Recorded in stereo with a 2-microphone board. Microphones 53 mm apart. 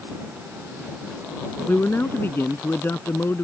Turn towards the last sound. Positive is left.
turn(degrees=45)  # may be behind; listen again after turning